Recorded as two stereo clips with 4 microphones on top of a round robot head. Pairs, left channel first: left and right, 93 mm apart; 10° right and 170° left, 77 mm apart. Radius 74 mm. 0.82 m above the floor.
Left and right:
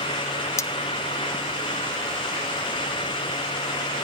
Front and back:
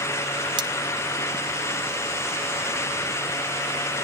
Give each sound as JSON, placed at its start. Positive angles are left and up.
{"t": 0.6, "sound": "cutlery clinking", "azimuth_deg": 150, "distance_m": 0.9}